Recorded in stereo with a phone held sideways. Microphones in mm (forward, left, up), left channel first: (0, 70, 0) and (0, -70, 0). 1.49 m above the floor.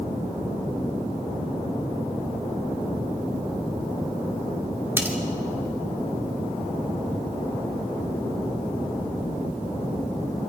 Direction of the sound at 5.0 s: 15° right (ahead or behind).